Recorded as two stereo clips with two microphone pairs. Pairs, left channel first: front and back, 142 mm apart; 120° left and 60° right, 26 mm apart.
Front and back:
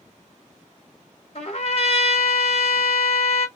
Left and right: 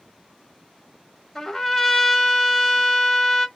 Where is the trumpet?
40° left, 1.1 m.